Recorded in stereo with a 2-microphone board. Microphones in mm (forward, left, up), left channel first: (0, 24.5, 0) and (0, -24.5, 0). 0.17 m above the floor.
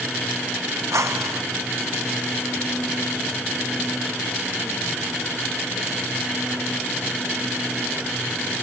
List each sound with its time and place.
0.9 s a whoosh: 85° right